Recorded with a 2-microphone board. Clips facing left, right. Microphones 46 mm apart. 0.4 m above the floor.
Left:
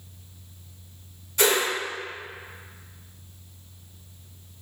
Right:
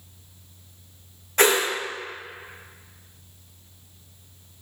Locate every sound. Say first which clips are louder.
1.4 s a whoosh: right 3 dB; 55° right (ahead or behind), 1.6 m